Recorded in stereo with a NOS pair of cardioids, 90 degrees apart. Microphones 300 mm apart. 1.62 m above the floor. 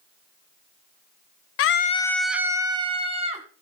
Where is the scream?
55° left, 0.5 m; by 3.5 s 20° right, 2 m.